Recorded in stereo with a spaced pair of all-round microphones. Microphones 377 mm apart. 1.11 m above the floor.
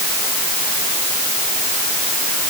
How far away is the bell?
No bell in this recording.